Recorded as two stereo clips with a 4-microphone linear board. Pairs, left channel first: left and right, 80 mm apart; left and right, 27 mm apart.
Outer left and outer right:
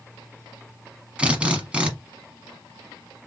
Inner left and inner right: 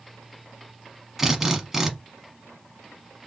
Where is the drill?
15° right (ahead or behind), 0.8 m.